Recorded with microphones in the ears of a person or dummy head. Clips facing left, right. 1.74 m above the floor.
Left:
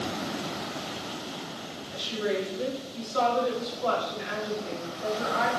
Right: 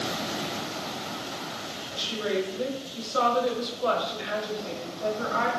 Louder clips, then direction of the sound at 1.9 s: Even; 50° right (ahead or behind).